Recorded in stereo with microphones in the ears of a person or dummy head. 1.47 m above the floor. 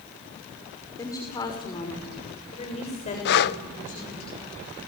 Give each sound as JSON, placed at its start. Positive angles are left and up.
{"t": 1.0, "sound": "a woman speaking", "side_deg": 15, "distance_m": 5.5}
{"t": 3.2, "sound": "breathing", "side_deg": 60, "distance_m": 0.8}